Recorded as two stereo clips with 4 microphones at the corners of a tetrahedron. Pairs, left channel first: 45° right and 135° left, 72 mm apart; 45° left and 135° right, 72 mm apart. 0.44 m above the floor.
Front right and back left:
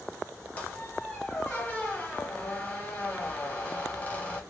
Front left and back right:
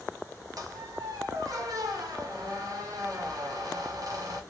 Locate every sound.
0.6 s a squeak: 110° right, 1.0 m